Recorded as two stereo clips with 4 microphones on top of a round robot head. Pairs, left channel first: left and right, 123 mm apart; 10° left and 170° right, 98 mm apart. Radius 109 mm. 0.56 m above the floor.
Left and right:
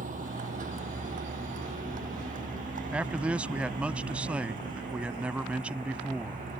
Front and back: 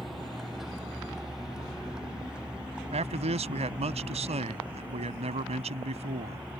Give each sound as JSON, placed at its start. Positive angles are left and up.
{"t": 0.0, "sound": "a vehicle", "azimuth_deg": -80}
{"t": 2.9, "sound": "a man speaking", "azimuth_deg": -170}